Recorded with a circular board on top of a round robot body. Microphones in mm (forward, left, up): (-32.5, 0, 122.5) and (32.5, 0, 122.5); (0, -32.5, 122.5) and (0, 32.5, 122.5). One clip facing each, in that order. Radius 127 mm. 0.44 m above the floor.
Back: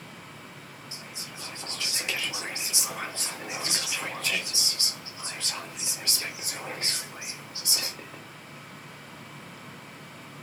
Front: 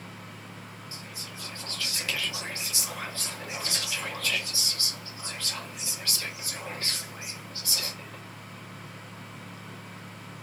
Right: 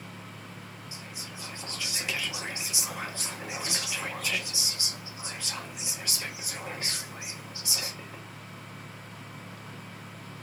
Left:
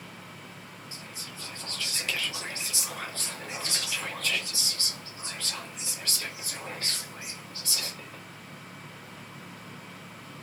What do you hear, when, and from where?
0.9 s whispering: 140° right, 0.8 m